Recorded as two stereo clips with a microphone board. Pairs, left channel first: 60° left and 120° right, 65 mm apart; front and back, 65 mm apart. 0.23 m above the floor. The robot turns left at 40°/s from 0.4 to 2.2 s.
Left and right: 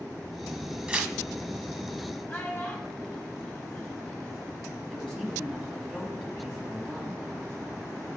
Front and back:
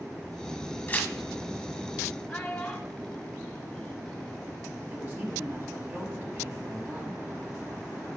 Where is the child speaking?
60° left, 1.1 m.